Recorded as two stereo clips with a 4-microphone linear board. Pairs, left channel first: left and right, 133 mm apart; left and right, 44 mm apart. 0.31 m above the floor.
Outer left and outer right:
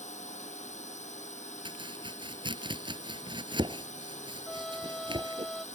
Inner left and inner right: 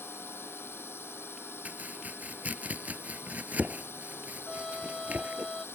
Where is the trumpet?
Centre (ahead or behind).